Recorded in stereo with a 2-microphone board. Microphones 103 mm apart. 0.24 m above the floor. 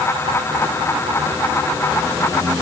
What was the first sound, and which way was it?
Only background noise.